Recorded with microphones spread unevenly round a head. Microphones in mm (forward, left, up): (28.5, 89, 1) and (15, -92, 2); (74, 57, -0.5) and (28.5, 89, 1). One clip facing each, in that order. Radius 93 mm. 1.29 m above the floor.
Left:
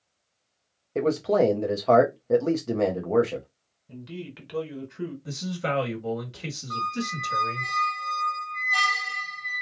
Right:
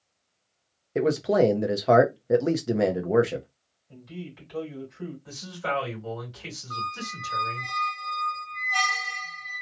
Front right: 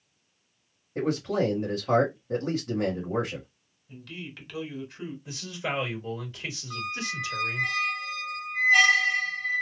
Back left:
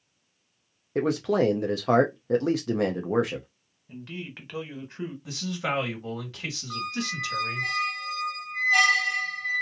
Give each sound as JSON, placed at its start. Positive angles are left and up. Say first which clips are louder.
{"t": 0.9, "sound": "a man speaking", "louder": "even, back left 3 dB", "azimuth_deg": -175, "distance_m": 0.6}
{"t": 3.9, "sound": "a man speaking", "louder": "left 2 dB, back left 3 dB", "azimuth_deg": 90, "distance_m": 1.5}
{"t": 5.2, "sound": "a man speaking", "louder": "left 2 dB, back left 3 dB", "azimuth_deg": 125, "distance_m": 1.7}
{"t": 6.7, "sound": "a squeak", "louder": "left 8 dB, back left 2 dB", "azimuth_deg": 120, "distance_m": 1.4}